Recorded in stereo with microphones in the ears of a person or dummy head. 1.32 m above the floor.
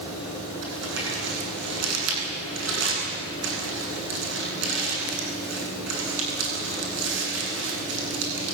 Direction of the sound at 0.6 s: 65° right (ahead or behind).